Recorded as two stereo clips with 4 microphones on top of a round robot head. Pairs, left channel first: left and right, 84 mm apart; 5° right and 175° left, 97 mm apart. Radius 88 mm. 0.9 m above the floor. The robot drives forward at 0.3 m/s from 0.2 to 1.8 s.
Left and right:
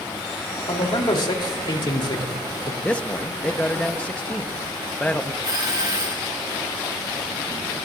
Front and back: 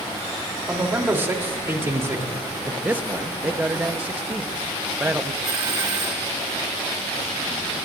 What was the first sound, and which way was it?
A man speaking, 110° left.